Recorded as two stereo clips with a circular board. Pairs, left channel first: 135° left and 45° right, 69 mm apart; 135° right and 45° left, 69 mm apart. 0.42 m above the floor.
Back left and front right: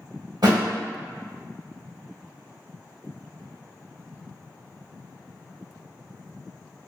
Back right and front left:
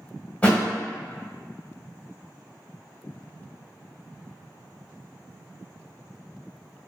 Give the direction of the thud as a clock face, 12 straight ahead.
2 o'clock.